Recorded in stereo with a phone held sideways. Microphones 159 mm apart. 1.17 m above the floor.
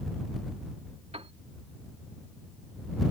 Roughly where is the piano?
Right.